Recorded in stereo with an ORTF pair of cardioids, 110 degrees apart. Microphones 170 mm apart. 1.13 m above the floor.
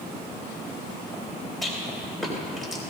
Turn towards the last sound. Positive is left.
turn(degrees=0)